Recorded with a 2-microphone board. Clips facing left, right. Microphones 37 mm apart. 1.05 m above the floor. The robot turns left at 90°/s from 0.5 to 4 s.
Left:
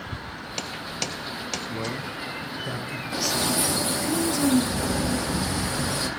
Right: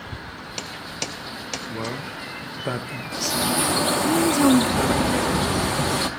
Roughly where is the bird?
Ahead.